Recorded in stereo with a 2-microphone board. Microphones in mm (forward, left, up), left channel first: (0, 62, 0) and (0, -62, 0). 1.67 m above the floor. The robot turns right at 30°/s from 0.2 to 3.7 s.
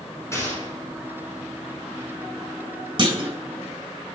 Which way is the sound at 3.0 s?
40° right (ahead or behind).